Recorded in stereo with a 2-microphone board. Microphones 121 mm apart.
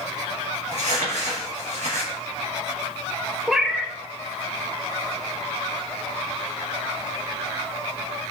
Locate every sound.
0.7 s crumpling: 70° right (ahead or behind), 3.5 m
3.5 s a cat meowing: 5° right (ahead or behind), 0.7 m